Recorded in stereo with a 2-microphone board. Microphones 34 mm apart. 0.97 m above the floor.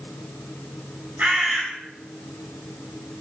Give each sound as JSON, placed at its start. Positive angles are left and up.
{"t": 1.2, "sound": "a bird", "side_deg": -65, "distance_m": 5.0}